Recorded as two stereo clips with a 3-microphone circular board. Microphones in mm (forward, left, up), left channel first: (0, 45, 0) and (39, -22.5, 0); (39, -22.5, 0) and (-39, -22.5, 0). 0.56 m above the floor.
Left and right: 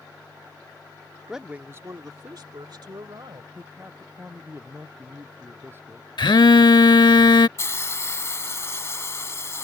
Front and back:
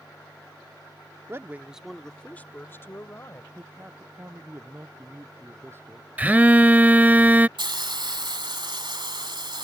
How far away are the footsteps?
I don't hear footsteps.